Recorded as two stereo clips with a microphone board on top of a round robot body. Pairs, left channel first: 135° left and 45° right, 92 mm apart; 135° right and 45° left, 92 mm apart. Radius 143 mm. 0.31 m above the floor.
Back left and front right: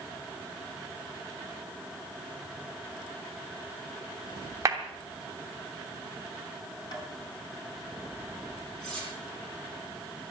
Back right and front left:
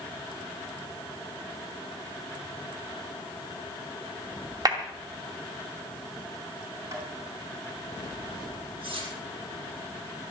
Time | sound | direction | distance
4.7 | a clap | 10° left | 2.5 m
6.9 | tapping | 100° left | 4 m
8.8 | cutlery clinking | 55° left | 7 m